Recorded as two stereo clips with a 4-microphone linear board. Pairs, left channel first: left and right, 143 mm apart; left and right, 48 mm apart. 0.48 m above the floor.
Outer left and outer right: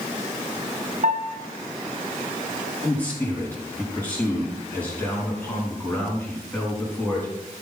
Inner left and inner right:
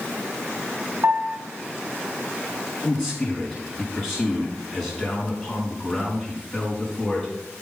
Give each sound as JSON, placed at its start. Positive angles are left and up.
{"t": 1.0, "sound": "a piano", "side_deg": -70, "distance_m": 1.2}
{"t": 2.8, "sound": "a man speaking", "side_deg": 10, "distance_m": 4.5}